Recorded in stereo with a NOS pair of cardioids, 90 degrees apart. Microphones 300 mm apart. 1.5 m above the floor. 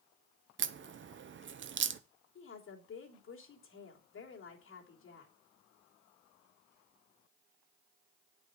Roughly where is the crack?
Ahead right.